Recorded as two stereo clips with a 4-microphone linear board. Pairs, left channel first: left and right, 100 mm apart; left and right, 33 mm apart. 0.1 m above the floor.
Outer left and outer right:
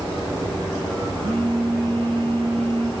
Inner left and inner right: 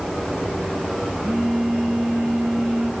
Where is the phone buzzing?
80° right, 6 m.